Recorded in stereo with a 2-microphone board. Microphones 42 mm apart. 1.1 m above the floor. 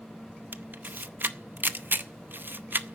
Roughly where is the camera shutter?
Right.